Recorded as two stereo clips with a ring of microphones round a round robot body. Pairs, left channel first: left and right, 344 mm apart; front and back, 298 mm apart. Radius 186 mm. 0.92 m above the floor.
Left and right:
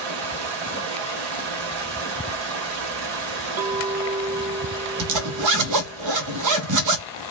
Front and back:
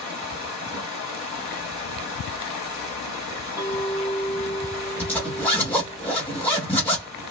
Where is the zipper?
85° right, 0.5 m.